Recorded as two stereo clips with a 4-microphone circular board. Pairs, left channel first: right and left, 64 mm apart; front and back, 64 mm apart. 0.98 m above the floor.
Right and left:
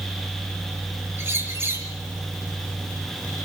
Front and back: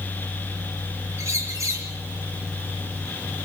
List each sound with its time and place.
1.2 s a bird: 140° left, 4 m